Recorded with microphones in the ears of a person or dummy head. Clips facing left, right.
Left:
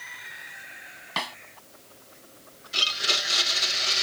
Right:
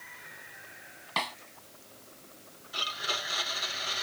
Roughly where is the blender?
Left.